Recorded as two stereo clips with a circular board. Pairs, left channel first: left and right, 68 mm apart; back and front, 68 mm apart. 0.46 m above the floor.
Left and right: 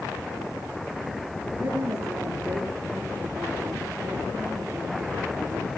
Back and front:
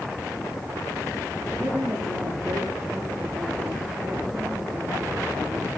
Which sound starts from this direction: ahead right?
A woman speaking, at 1.6 s.